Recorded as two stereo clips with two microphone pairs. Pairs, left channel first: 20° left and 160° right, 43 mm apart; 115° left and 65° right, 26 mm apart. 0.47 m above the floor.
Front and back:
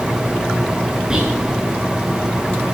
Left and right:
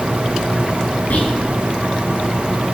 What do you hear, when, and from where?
1.1 s whispering: 125° left, 6 m